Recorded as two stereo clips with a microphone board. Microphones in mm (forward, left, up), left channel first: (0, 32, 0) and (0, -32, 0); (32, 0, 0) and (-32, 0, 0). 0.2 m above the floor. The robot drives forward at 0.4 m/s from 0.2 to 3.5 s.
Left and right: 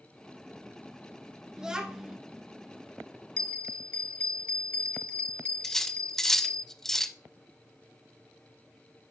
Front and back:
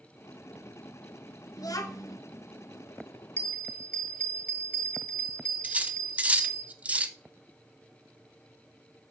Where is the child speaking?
10° right, 1.5 m.